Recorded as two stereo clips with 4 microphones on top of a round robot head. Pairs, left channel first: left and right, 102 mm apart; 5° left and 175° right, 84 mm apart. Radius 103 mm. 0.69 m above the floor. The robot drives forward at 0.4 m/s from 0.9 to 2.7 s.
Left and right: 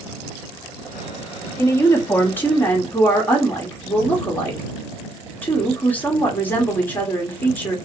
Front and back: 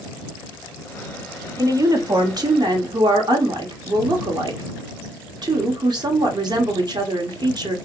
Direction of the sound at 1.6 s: 150° left.